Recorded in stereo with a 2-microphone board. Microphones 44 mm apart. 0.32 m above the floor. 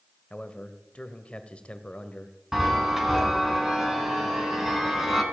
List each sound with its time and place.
0.3 s a man speaking: 25° left (ahead or behind), 1.3 m
2.5 s a chime: 10° right (ahead or behind), 2.5 m